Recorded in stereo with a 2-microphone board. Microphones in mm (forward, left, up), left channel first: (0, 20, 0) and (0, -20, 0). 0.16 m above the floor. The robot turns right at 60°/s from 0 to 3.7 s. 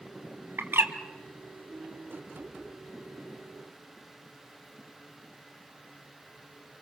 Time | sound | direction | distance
0.6 | a bird | 70° right (ahead or behind) | 2 m